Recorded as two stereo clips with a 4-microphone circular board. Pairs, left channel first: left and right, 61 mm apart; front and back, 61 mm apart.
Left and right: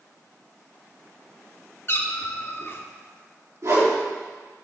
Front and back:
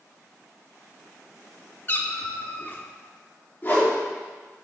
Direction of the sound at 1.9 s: 50° left.